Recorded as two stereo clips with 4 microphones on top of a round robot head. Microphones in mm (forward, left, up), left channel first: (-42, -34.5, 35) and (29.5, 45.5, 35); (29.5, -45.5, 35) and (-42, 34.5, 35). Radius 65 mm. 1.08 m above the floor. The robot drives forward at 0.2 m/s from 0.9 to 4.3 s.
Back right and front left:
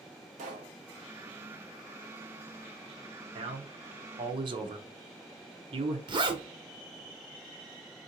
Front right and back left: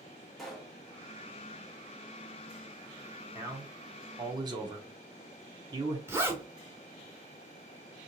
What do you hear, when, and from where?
0.4 s a pop: 40° left, 1.0 m
3.4 s a man speaking: 70° left, 0.8 m; by 6.0 s 85° left, 0.7 m
6.1 s a zipper: 70° left, 0.8 m